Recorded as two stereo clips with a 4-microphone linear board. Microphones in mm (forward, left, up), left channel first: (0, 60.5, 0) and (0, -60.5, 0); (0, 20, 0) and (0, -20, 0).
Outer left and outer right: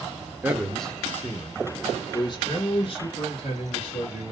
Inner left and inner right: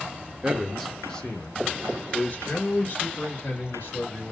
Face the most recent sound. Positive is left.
turn(degrees=50)  # may be behind; listen again after turning